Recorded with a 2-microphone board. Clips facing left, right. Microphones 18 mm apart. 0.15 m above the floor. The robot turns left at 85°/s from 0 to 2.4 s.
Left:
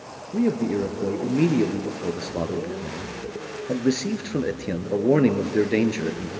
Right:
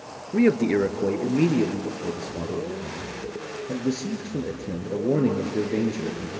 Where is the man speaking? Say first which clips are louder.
Right 3 dB; 85° right, 2 m; by 6.3 s 100° left, 2 m.